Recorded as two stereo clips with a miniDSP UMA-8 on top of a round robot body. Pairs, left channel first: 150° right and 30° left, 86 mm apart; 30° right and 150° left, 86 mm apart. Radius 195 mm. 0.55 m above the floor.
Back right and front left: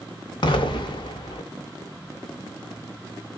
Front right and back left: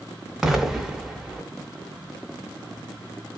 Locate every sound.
0.4 s an explosion: 125° right, 0.6 m